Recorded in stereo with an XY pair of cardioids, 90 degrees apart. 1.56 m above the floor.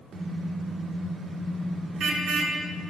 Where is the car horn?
65° right, 2.5 m.